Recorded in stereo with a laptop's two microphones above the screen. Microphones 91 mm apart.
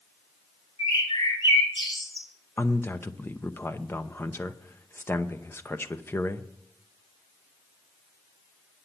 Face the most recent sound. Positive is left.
turn(degrees=25)  # may be behind; listen again after turning